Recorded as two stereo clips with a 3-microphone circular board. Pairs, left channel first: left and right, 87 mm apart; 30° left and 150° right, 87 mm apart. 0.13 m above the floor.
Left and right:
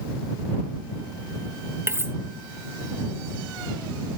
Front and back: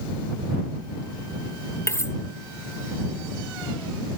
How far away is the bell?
No bell in this recording.